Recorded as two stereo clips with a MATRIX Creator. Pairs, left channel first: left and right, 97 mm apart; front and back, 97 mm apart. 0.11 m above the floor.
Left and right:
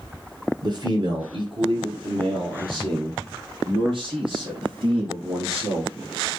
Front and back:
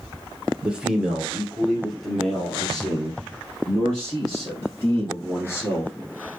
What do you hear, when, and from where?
0.6 s a man speaking: 105° right, 2.0 m; by 5.9 s 75° right, 4.5 m